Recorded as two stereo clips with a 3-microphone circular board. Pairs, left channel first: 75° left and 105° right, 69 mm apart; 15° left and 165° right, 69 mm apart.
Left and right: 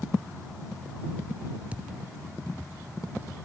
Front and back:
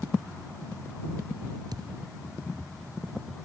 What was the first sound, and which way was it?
A thud, 175° right.